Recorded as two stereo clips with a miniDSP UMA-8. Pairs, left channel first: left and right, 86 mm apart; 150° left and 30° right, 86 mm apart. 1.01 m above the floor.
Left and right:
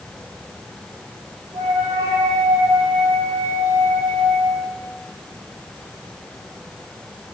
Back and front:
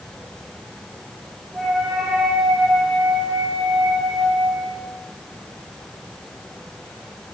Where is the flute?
110° right, 4 m.